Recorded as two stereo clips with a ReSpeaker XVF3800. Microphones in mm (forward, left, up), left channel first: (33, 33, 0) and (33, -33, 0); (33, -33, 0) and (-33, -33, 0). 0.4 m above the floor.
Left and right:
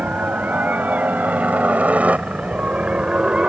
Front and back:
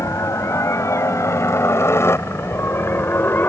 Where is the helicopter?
30° right; by 3.5 s 25° right.